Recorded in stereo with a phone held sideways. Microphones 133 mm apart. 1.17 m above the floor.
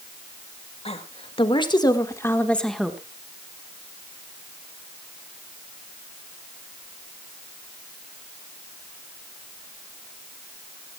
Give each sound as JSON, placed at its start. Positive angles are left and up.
{"t": 0.8, "sound": "a woman speaking", "side_deg": 50, "distance_m": 2.5}